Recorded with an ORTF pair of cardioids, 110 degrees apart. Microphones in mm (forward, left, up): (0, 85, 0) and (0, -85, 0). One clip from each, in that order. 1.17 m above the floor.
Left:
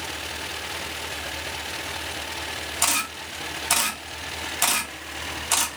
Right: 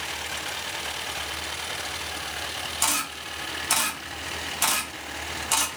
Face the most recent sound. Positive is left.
turn(degrees=10)